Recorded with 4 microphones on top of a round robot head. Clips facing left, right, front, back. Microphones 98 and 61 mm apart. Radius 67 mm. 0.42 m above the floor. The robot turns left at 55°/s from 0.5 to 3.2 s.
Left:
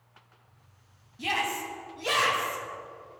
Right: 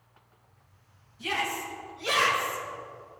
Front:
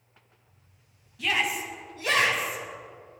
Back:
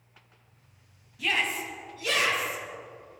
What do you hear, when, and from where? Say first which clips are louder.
1.2 s a shout: left 1 dB, front 1 dB; 90° left, 4.5 m; by 2.6 s 15° left, 4.5 m